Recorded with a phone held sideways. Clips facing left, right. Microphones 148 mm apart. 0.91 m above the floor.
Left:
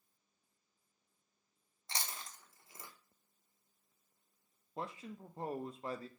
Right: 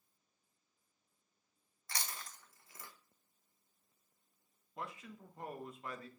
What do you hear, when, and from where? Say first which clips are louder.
1.9 s chewing: left 1 dB; 25° left (ahead or behind), 0.7 m
4.8 s a man speaking: left 3 dB; 30° left (ahead or behind), 0.5 m